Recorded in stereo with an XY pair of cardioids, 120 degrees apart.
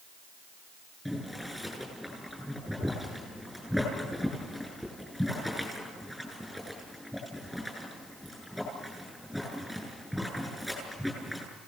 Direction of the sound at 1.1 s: 5° left.